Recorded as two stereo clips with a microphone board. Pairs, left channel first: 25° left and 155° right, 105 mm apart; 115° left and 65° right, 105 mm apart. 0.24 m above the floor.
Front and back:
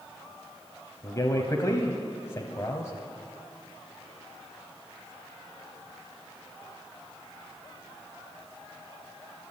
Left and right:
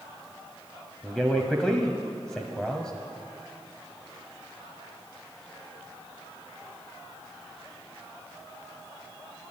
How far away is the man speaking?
About 1.2 m.